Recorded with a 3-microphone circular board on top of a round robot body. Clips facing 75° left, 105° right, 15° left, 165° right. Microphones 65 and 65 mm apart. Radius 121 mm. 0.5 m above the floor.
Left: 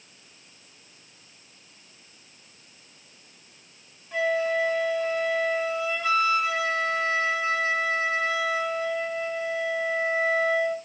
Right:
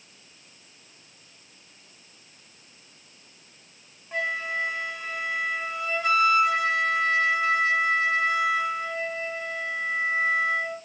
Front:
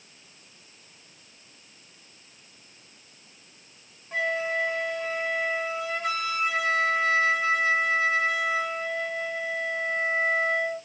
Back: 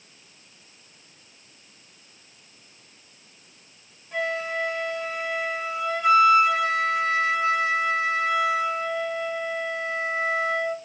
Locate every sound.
4.1 s a flute: 35° right, 3 m